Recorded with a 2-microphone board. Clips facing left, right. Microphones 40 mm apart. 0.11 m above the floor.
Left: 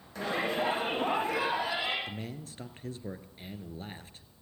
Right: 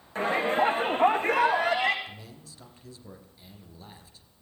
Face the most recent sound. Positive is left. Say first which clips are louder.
# left 5 dB
turn(degrees=45)  # may be behind; listen again after turning